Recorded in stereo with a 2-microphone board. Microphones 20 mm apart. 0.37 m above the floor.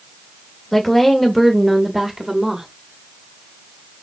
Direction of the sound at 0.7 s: 25° left (ahead or behind).